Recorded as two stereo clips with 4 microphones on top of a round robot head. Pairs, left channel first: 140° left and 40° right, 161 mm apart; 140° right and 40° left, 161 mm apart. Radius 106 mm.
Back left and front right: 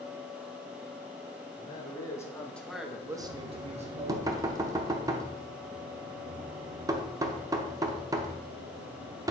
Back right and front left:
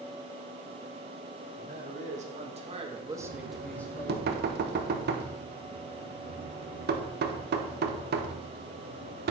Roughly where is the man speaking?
Left.